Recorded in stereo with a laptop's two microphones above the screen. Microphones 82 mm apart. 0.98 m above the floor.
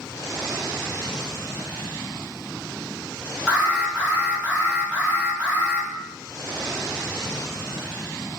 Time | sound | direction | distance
3.5 | an alarm | 15° right (ahead or behind) | 0.9 m